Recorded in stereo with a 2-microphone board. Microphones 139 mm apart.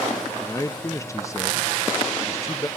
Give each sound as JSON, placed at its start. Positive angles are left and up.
{"t": 0.4, "sound": "a man speaking", "side_deg": 20, "distance_m": 0.6}